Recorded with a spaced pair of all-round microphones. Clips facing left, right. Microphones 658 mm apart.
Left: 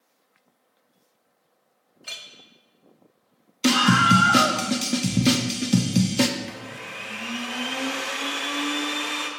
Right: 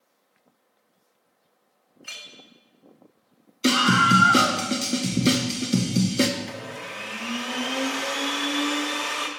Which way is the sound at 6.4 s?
65° right (ahead or behind).